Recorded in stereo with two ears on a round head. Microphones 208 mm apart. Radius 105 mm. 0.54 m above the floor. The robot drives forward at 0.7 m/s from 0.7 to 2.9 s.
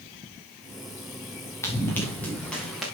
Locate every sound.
1.6 s running footsteps: 10° left (ahead or behind), 3.5 m; by 2.9 s centre (ahead or behind), 4 m